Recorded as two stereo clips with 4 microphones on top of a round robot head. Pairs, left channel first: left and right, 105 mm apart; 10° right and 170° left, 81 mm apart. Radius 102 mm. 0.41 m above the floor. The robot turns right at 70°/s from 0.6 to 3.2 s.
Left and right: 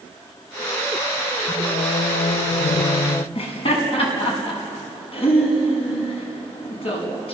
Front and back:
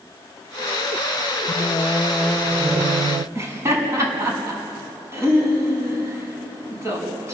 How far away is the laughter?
About 5.5 m.